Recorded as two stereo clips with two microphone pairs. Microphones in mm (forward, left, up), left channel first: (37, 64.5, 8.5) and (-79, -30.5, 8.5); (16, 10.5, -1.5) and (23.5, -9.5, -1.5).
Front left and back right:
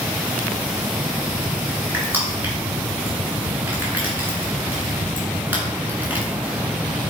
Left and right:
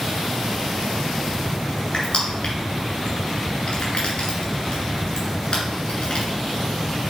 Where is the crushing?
145° left, 2.5 m.